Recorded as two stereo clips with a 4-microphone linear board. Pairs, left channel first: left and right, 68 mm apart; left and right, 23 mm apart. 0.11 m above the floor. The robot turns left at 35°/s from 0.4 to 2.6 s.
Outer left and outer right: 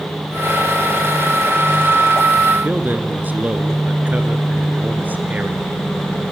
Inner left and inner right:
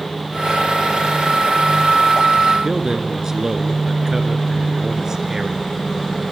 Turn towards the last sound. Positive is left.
turn(degrees=-25)  # may be behind; listen again after turning